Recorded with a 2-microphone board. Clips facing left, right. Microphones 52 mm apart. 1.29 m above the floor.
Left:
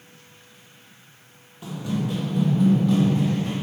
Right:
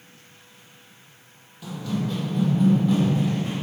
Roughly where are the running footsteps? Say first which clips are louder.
Left 1 dB; left.